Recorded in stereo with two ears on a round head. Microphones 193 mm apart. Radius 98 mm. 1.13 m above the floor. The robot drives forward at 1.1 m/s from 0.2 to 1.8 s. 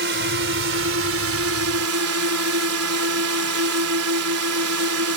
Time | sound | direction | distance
0.0 | a drone | 55° right (ahead or behind) | ?